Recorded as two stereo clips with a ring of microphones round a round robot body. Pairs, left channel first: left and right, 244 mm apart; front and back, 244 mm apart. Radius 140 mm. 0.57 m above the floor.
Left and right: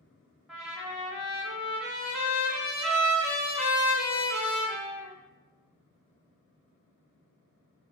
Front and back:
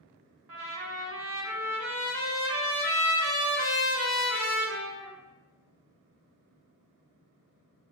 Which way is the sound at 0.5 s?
175° right.